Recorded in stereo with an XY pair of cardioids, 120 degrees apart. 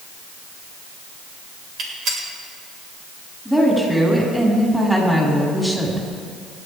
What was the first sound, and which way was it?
A gunshot, 60° right.